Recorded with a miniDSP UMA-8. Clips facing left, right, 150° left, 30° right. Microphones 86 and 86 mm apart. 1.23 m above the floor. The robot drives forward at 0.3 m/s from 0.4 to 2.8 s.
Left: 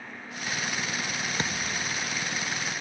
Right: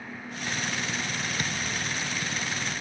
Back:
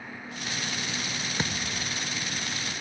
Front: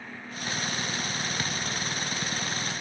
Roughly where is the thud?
Left.